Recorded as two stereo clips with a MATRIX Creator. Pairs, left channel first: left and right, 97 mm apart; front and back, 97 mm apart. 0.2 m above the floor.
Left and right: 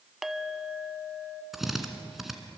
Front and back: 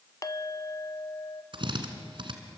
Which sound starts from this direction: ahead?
A clink, at 0.2 s.